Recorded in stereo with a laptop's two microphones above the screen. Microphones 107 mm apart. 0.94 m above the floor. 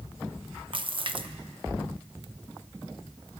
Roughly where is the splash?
Right.